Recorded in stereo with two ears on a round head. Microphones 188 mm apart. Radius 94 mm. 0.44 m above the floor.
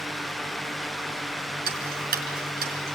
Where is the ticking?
45° right (ahead or behind), 4 m.